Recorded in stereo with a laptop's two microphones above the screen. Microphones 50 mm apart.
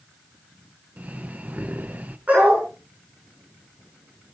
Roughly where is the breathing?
Right.